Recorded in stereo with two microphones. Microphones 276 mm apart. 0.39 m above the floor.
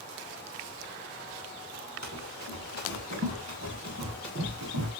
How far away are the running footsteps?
About 5.5 m.